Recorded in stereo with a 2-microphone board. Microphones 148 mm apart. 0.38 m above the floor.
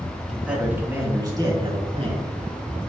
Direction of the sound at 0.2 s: Centre (ahead or behind).